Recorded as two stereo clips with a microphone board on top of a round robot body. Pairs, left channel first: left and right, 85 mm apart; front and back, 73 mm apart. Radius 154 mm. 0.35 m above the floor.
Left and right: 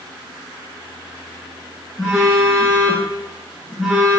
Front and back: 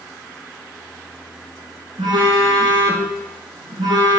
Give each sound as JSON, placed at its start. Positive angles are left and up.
{"t": 2.0, "sound": "a phone buzzing", "azimuth_deg": -175, "distance_m": 0.9}